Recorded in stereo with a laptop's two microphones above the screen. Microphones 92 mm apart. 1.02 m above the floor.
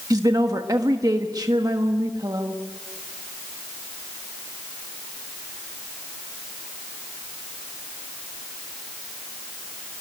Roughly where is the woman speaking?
Right.